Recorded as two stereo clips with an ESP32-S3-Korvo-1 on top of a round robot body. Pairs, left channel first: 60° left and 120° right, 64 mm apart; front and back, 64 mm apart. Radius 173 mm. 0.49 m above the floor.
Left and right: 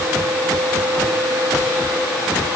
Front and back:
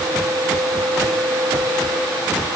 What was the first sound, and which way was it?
Only background noise.